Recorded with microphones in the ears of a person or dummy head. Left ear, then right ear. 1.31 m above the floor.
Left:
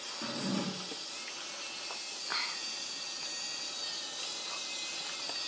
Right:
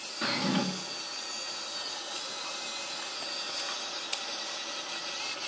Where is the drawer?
65° right (ahead or behind), 1.2 m.